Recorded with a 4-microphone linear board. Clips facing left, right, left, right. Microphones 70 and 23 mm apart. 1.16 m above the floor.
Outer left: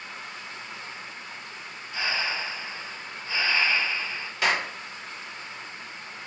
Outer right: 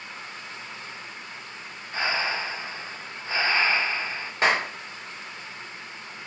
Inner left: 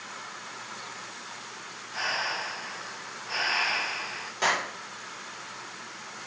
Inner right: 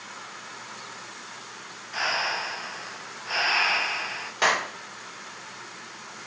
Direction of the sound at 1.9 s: 40° right (ahead or behind).